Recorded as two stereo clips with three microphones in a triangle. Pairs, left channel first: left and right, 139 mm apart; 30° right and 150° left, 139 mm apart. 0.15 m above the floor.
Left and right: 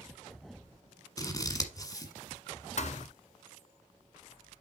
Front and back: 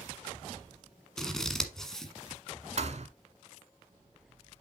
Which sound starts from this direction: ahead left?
Scissors, at 1.2 s.